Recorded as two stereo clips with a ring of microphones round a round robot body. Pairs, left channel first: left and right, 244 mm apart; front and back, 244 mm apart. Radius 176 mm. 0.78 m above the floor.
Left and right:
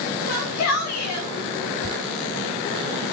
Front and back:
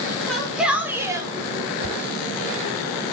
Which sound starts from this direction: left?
A shout, at 0.3 s.